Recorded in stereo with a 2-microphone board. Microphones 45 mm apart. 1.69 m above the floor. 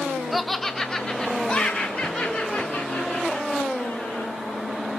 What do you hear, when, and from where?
0.3 s laughter: centre (ahead or behind), 0.5 m; by 4.3 s 35° left (ahead or behind), 2.5 m